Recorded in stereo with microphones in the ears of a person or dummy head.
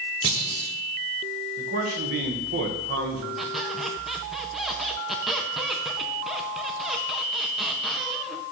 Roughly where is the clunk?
Right.